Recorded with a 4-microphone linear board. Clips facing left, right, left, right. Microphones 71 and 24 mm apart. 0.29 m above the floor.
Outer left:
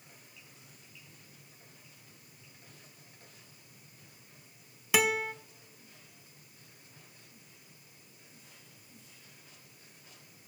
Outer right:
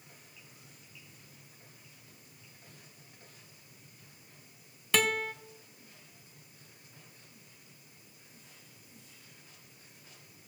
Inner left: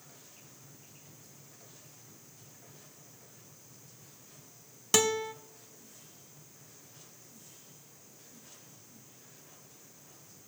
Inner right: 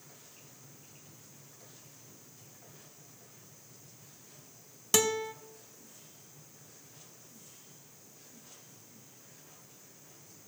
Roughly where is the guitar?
Centre.